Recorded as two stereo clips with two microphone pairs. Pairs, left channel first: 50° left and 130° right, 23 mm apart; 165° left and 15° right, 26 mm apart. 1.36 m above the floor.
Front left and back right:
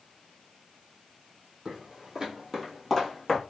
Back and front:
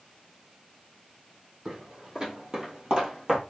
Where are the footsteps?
80° right, 2 m; by 3.4 s 10° left, 1.5 m.